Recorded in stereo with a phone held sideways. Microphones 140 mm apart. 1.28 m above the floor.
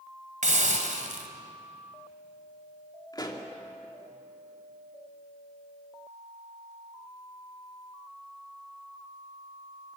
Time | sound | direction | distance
0.4 | a hiss | 60° right (ahead or behind) | 2 m
3.1 | a pop | 30° left (ahead or behind) | 2.5 m